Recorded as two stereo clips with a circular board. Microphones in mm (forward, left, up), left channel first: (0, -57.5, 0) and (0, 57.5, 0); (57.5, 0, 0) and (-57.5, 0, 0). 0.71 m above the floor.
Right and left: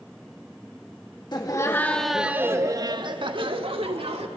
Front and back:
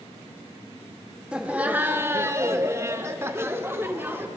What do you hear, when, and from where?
1.3 s laughter: 105° right, 1.1 m; by 4.3 s 110° left, 2 m